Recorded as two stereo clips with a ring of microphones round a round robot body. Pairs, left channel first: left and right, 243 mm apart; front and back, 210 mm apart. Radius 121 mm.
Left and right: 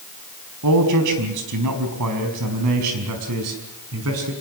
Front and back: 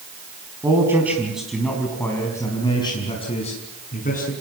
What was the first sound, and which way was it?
A man speaking, 100° right.